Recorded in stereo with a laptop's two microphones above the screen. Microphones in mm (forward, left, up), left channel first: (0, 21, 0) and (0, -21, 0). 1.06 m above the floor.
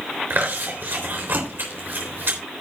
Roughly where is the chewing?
Right.